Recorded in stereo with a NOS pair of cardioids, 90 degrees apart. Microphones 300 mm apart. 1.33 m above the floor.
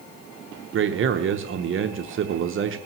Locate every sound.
0.7 s a man speaking: 45° right, 0.8 m